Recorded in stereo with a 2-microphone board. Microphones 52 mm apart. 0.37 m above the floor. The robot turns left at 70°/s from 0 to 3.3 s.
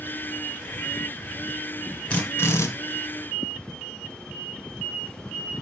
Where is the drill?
160° left, 2 m; by 2.7 s 115° left, 2 m.